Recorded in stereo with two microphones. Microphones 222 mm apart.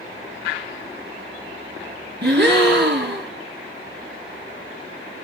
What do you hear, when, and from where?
2.2 s a gasp: 50° right (ahead or behind), 1.8 m